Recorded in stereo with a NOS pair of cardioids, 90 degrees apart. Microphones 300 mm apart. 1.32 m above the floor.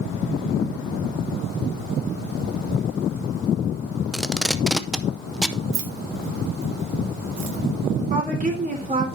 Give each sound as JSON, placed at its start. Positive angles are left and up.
{"t": 4.1, "sound": "tape being pulled", "azimuth_deg": 0, "distance_m": 0.6}
{"t": 5.7, "sound": "keys jangling", "azimuth_deg": -65, "distance_m": 1.6}
{"t": 8.1, "sound": "a woman speaking", "azimuth_deg": -25, "distance_m": 4.0}